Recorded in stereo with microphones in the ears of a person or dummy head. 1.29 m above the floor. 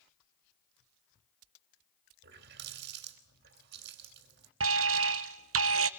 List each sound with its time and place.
2.2 s a running tap: 65° right (ahead or behind), 2.5 m
4.6 s an alarm: 70° right (ahead or behind), 0.9 m